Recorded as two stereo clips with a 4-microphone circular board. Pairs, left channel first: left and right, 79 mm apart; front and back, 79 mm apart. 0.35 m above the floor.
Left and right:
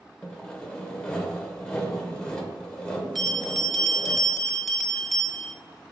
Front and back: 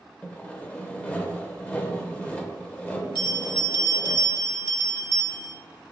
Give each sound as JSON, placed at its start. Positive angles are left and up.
{"t": 0.2, "sound": "sawing", "azimuth_deg": 35, "distance_m": 0.6}
{"t": 3.1, "sound": "a bell", "azimuth_deg": 5, "distance_m": 0.6}